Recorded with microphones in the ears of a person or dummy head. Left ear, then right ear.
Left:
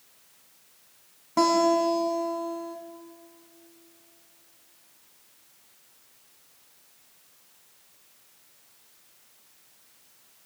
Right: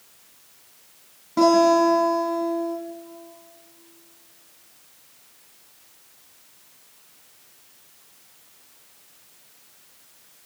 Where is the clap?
No clap in this recording.